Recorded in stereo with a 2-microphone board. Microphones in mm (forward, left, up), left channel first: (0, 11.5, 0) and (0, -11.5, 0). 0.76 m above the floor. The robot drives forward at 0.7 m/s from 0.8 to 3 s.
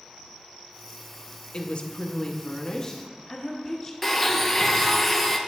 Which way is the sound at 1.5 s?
45° left (ahead or behind).